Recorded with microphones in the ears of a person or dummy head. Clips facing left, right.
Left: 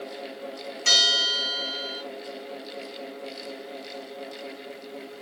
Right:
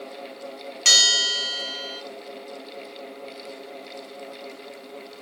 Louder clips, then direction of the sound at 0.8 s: Left 2 dB; 70° right (ahead or behind).